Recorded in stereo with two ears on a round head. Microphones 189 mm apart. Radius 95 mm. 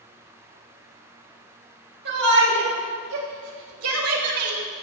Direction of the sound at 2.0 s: 55° right (ahead or behind).